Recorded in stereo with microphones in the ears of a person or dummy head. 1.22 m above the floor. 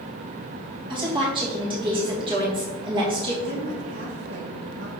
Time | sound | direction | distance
0.9 | a woman speaking | 25° right (ahead or behind) | 3 m
3.4 | a woman speaking | 70° right (ahead or behind) | 3 m